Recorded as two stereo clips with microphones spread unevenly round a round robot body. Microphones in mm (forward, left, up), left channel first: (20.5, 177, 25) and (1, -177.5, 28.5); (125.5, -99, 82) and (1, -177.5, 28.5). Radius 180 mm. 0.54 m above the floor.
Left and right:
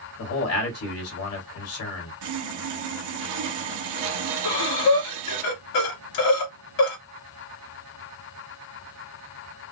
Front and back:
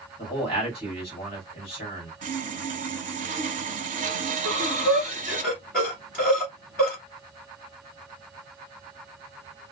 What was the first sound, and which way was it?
A man speaking, 90° left.